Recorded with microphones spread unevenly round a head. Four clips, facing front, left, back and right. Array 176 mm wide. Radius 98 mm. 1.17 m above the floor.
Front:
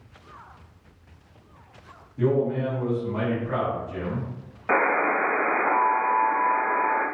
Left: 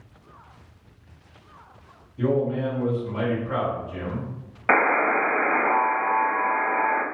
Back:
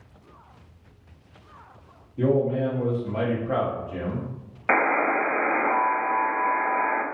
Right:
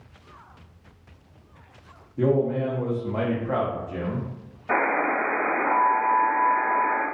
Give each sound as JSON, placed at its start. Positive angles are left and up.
{"t": 2.2, "sound": "a man speaking", "azimuth_deg": -110, "distance_m": 0.9}
{"t": 4.7, "sound": "a buzzer", "azimuth_deg": 85, "distance_m": 0.7}